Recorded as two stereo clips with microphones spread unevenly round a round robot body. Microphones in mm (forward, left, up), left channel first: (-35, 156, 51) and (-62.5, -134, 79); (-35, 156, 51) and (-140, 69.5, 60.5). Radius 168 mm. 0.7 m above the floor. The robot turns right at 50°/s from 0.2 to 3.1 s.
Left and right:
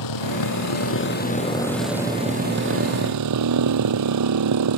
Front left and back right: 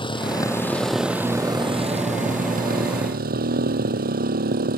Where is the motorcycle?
95° left; by 4.8 s 120° right.